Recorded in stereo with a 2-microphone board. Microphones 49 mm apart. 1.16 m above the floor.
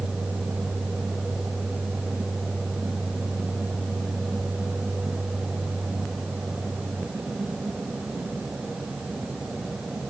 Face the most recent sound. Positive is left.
No sound to turn to.